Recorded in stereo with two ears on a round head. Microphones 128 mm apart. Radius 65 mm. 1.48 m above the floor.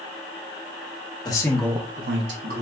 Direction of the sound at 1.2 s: 30° left (ahead or behind).